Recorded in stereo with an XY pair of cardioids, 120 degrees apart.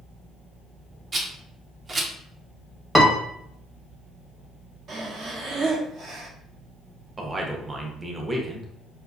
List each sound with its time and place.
1.1 s a rattle: 30° right, 0.6 m
3.0 s a piano: 5° right, 0.8 m
4.9 s breathing: 55° right, 0.9 m
7.2 s a man speaking: 20° right, 0.7 m